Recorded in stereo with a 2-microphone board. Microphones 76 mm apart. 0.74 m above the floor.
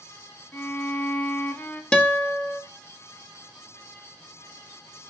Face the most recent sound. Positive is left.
turn(degrees=15)  # may be behind; listen again after turning